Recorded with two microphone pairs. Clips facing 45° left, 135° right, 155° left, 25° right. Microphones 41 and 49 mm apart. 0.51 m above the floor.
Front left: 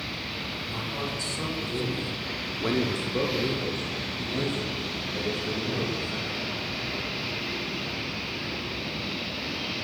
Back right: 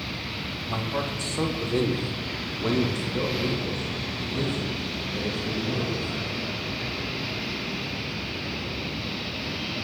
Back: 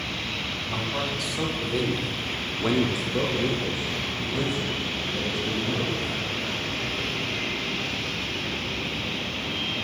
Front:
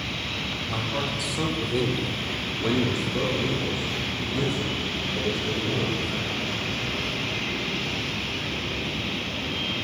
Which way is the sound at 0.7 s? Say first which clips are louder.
Back right 6 dB, even; 105° right.